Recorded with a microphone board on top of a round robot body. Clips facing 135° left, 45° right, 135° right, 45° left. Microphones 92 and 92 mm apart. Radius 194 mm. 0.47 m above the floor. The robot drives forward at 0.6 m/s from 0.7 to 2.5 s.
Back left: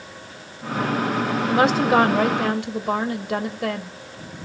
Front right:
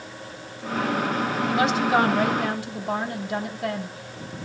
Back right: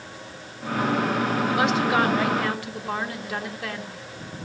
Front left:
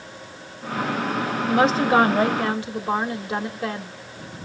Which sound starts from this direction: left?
A woman speaking, at 1.5 s.